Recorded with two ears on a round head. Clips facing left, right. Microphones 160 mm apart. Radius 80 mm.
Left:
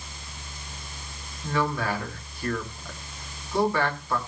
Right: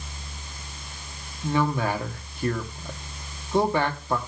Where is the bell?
No bell in this recording.